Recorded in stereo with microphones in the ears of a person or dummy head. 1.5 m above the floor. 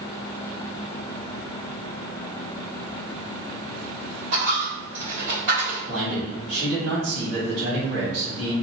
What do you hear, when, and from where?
4.3 s a dropped coin: 35° right (ahead or behind), 1.5 m
5.9 s a man speaking: 75° right (ahead or behind), 1.4 m